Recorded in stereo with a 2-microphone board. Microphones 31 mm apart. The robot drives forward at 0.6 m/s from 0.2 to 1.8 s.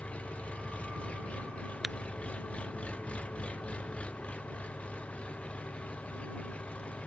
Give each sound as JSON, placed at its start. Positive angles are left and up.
{"t": 0.0, "sound": "an engine running", "side_deg": 40}
{"t": 1.8, "sound": "tapping", "side_deg": -5}